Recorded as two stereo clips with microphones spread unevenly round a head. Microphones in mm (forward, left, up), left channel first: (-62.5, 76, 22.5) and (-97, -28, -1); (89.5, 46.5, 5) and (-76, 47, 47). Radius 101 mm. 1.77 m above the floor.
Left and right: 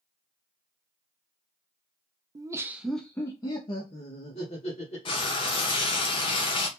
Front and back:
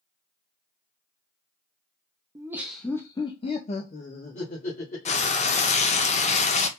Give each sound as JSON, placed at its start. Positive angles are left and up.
{"t": 2.4, "sound": "laughter", "azimuth_deg": -160, "distance_m": 0.5}
{"t": 5.0, "sound": "frying", "azimuth_deg": 55, "distance_m": 0.5}